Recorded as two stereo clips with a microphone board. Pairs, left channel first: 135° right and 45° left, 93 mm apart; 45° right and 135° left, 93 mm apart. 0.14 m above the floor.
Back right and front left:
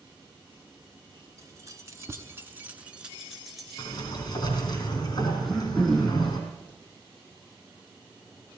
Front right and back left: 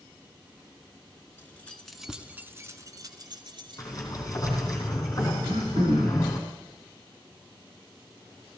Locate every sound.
1.4 s keys jangling: 10° left, 1.4 m; by 4.3 s 140° left, 2.5 m
3.8 s a sliding door: 95° right, 4 m
5.4 s throat clearing: 145° left, 6 m